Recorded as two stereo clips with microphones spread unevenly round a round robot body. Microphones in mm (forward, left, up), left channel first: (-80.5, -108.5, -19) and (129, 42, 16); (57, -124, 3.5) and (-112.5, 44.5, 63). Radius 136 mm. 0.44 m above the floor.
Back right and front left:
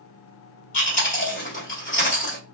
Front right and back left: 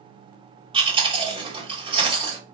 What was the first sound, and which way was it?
Chewing, 150° right.